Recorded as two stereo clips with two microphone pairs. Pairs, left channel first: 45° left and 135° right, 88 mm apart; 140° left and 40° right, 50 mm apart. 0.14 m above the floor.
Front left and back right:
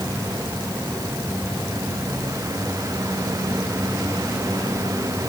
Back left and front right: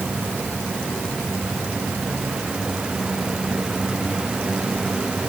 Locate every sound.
Only background noise.